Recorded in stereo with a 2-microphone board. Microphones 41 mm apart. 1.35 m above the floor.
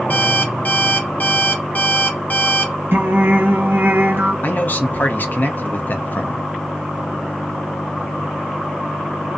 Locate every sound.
0.1 s an alarm clock: 45° left (ahead or behind), 0.8 m
2.9 s singing: 60° right (ahead or behind), 0.6 m
4.4 s a man speaking: 45° left (ahead or behind), 0.6 m